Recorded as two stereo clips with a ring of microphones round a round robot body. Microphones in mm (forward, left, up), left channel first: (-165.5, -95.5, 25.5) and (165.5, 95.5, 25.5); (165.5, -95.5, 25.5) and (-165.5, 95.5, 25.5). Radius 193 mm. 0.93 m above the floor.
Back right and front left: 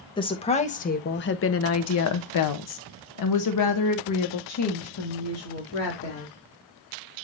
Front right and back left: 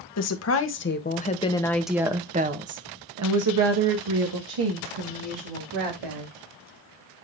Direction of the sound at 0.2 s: 75° right.